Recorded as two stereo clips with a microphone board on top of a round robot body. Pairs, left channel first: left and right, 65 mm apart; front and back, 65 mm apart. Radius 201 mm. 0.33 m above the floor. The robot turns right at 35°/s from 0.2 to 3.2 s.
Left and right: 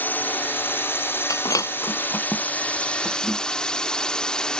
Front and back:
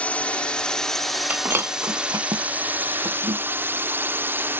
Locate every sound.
0.0 s a drone: 55° left; by 4.6 s 160° left
1.3 s breaking glass: 115° left; by 4.5 s straight behind